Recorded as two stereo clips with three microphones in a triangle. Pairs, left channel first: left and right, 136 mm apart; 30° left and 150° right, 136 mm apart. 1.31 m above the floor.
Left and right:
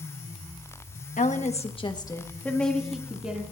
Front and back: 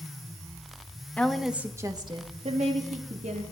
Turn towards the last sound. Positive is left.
turn(degrees=-170)